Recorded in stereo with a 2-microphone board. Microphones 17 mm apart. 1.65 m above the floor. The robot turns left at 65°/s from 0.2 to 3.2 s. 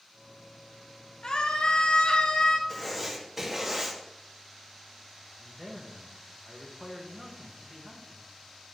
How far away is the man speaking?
About 2.5 m.